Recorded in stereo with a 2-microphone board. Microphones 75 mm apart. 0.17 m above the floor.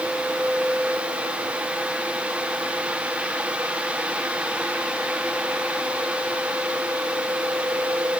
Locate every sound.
Only background noise.